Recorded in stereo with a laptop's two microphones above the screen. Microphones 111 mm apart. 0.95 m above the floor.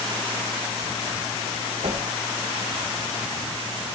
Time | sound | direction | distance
1.8 | a whoosh | 85° right | 2.5 m